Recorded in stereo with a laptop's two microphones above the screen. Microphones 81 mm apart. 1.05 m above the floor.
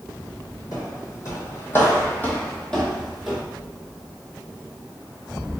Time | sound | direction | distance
0.7 | footsteps | 45° left (ahead or behind) | 1.9 m